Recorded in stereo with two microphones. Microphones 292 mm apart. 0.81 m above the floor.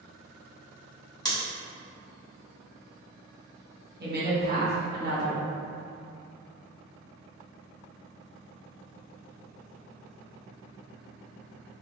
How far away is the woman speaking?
About 1.0 m.